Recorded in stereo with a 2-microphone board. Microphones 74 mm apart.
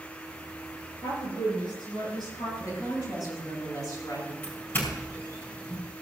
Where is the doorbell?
30° left (ahead or behind), 5 m.